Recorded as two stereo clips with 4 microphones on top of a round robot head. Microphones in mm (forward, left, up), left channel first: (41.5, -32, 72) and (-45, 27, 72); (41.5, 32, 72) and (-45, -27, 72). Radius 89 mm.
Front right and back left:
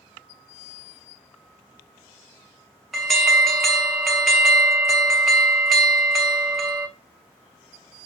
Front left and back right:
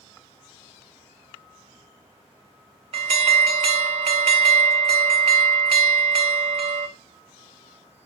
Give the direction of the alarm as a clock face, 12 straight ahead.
4 o'clock.